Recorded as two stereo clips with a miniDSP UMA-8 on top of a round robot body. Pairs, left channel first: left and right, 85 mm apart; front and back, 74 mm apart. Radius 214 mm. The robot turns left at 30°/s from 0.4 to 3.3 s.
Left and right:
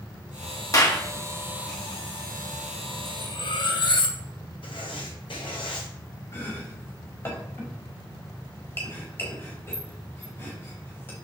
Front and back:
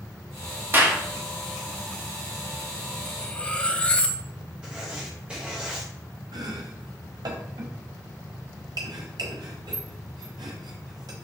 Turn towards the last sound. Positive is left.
turn(degrees=155)